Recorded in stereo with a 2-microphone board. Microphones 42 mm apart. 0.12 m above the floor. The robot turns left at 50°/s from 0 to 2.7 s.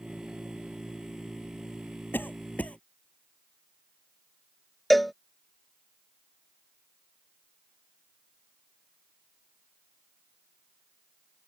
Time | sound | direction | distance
2.1 | a cough | 55° left (ahead or behind) | ?
4.9 | a cowbell | 5° left (ahead or behind) | ?